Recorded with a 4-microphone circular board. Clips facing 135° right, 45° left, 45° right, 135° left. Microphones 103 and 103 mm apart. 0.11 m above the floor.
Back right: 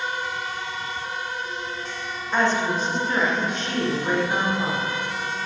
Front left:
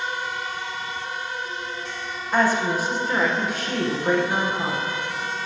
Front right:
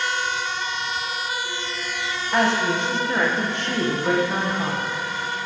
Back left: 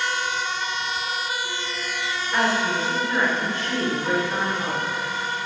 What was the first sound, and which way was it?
A woman speaking, 35° right.